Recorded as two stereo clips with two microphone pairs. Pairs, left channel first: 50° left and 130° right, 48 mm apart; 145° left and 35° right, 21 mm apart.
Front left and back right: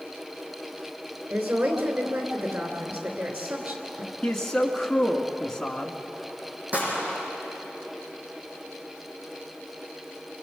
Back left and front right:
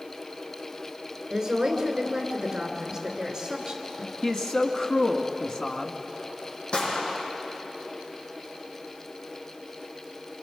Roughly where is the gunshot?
Behind.